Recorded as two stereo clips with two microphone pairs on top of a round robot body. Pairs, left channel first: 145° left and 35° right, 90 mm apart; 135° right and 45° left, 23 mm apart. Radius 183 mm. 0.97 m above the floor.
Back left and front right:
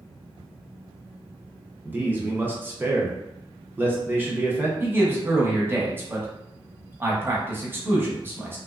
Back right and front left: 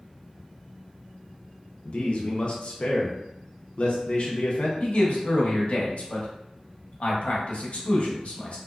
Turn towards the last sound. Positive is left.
turn(degrees=-100)